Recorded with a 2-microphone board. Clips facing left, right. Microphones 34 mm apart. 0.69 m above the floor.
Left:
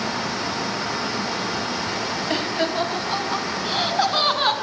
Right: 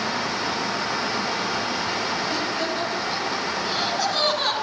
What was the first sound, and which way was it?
Laughter, 40° left (ahead or behind).